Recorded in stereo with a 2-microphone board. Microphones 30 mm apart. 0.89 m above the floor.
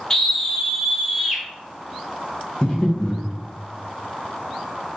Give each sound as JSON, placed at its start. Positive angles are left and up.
{"t": 0.1, "sound": "a scream", "side_deg": 15, "distance_m": 0.7}
{"t": 2.6, "sound": "breathing", "side_deg": 25, "distance_m": 0.8}